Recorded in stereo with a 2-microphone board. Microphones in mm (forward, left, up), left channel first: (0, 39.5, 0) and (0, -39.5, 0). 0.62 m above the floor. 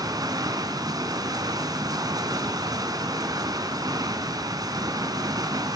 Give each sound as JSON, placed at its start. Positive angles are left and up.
{"t": 0.0, "sound": "running water", "side_deg": -55, "distance_m": 1.6}